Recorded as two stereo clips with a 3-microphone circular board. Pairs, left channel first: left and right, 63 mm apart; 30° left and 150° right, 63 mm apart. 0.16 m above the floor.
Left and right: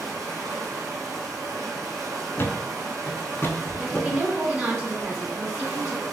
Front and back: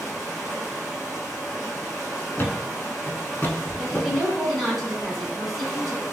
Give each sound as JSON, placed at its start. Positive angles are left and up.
{"t": 0.0, "sound": "running water", "azimuth_deg": -70, "distance_m": 1.5}
{"t": 2.4, "sound": "a thud", "azimuth_deg": 65, "distance_m": 0.5}
{"t": 3.8, "sound": "a woman speaking", "azimuth_deg": -55, "distance_m": 1.5}